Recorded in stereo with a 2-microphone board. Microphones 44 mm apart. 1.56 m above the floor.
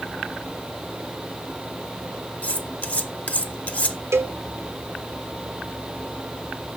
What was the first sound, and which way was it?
Cutlery clinking, 30° left (ahead or behind).